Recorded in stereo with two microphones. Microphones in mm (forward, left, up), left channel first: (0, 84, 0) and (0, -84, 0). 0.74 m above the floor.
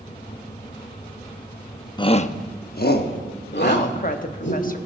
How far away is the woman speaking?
About 1.0 m.